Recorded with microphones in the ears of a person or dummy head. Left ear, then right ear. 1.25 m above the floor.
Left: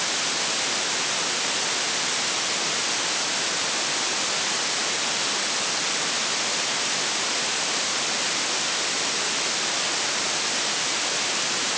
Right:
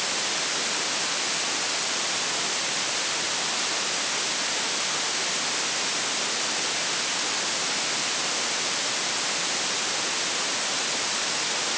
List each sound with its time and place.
Only background noise.